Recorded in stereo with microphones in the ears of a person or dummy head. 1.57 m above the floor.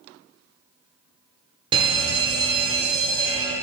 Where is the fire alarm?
25° right (ahead or behind), 1.2 m.